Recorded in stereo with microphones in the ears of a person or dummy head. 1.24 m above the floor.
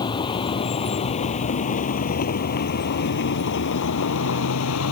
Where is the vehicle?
30° left (ahead or behind); by 4.9 s 80° left.